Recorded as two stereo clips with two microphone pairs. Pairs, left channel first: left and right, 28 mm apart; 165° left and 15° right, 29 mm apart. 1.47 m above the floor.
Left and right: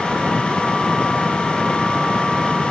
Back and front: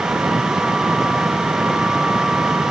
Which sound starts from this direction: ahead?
An engine running, at 0.0 s.